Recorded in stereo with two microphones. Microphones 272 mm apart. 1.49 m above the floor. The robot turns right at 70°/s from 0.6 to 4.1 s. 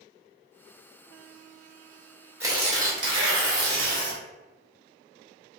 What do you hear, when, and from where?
2.4 s tearing paper: 170° right, 1.1 m; by 4.2 s 50° right, 1.1 m